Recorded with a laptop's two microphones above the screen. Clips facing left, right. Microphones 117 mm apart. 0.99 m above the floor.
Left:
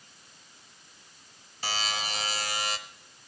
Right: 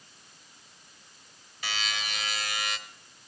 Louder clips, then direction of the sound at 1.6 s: Left 3 dB; 35° left (ahead or behind).